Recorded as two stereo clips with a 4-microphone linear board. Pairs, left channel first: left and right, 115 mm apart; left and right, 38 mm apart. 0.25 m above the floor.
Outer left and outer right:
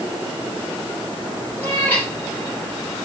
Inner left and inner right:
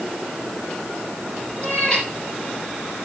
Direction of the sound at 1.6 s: 20° left (ahead or behind).